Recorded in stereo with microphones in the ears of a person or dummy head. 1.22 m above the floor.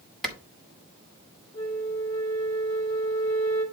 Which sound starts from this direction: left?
A flute, at 1.5 s.